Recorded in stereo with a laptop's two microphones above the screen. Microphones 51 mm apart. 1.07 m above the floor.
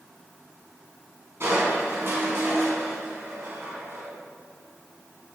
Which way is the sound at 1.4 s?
55° right (ahead or behind).